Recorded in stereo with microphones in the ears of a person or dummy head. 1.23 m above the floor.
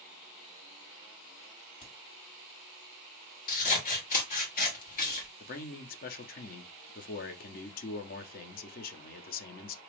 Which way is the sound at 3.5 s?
50° left (ahead or behind).